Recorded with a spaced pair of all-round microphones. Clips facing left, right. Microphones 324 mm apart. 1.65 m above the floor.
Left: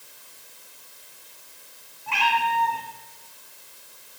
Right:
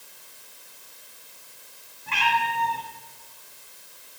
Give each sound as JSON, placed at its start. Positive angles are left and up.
{"t": 2.1, "sound": "a cat meowing", "side_deg": -20, "distance_m": 2.0}